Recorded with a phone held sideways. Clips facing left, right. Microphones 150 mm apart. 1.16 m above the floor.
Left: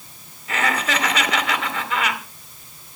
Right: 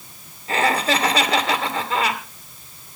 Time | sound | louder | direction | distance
0.5 | laughter | right 3 dB | 30° right (ahead or behind) | 3.5 m